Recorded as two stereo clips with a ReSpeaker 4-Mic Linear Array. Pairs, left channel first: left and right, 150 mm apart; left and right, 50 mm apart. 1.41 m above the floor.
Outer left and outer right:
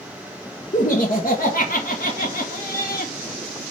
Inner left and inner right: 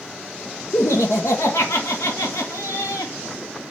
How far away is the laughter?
About 1.2 m.